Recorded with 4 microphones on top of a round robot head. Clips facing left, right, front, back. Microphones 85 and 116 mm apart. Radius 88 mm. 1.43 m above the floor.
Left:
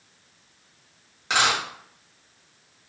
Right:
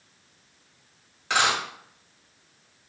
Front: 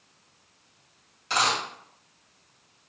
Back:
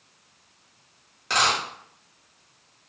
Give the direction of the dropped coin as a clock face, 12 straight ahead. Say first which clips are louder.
Left 1 dB, back 2 dB; 7 o'clock.